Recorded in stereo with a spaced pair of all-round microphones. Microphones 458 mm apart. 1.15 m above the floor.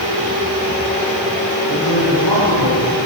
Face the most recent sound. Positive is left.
turn(degrees=70)  # may be behind; listen again after turning